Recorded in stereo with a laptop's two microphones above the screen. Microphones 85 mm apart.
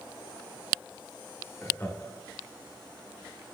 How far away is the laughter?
About 1.3 m.